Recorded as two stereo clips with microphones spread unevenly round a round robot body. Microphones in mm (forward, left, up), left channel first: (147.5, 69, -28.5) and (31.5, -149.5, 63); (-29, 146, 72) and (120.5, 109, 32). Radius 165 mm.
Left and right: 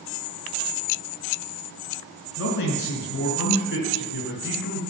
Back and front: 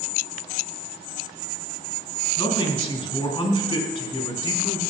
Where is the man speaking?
110° left, 3.5 m.